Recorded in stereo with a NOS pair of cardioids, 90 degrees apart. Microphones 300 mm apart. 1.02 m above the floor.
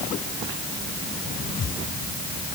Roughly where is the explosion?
I don't hear an explosion.